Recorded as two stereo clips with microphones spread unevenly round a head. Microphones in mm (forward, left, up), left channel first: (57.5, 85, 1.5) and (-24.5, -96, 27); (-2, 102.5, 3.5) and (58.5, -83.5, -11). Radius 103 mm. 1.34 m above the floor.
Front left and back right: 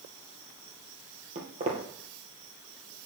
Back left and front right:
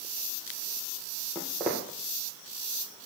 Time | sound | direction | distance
1.4 | footsteps | 155° right | 2.5 m